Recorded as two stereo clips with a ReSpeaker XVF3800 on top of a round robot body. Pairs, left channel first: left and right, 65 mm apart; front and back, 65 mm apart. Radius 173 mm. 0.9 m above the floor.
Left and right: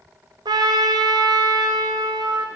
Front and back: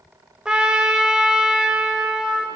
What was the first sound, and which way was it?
A trumpet, 105° right.